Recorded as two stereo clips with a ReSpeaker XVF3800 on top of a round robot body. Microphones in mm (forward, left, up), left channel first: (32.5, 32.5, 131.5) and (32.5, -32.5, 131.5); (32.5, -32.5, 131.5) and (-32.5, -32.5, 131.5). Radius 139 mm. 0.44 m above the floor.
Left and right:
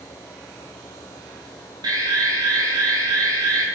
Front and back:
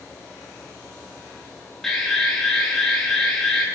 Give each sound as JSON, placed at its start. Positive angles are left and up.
{"t": 1.8, "sound": "an alarm", "azimuth_deg": -85, "distance_m": 7.0}